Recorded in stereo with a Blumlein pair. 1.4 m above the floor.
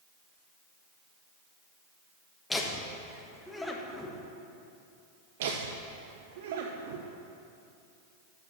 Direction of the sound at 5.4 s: 55° right.